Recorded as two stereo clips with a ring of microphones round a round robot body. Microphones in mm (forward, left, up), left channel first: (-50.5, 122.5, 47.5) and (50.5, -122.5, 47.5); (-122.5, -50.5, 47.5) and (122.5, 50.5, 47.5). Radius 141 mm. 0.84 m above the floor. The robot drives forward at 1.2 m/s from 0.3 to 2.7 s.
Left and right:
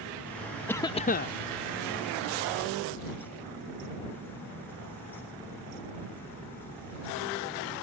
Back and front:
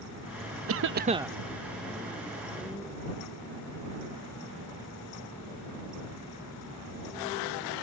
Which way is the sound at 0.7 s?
30° left.